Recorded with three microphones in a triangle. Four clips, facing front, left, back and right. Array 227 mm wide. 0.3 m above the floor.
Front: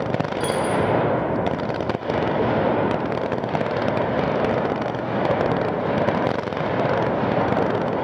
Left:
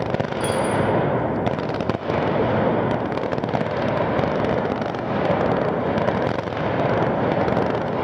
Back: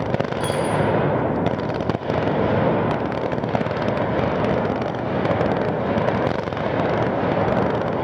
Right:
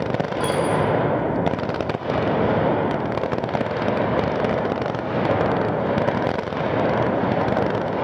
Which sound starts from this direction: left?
A dropped coin, at 0.4 s.